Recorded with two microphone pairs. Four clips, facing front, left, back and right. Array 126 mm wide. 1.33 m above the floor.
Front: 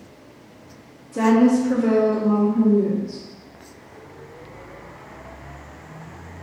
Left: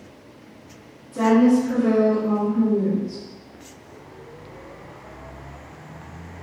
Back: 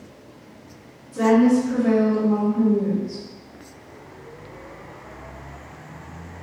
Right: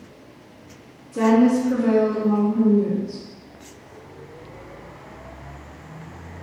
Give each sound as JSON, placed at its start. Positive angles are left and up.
{"t": 1.1, "sound": "a woman speaking", "azimuth_deg": -5, "distance_m": 1.2}